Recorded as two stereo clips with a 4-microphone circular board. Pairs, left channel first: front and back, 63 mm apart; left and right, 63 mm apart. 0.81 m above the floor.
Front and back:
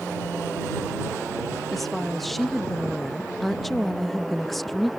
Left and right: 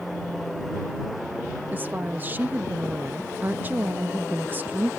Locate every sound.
1.7 s a woman speaking: 85° right